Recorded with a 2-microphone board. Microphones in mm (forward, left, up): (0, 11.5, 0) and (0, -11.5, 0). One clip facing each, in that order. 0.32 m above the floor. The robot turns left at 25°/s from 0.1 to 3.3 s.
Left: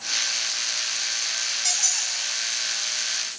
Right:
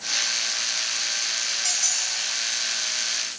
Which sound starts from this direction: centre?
A squeak, at 1.6 s.